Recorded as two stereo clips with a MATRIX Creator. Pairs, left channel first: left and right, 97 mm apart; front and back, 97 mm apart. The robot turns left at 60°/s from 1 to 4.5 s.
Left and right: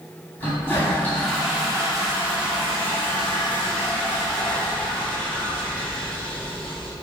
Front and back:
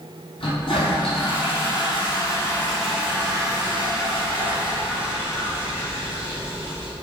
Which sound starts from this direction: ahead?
A toilet flushing, at 0.4 s.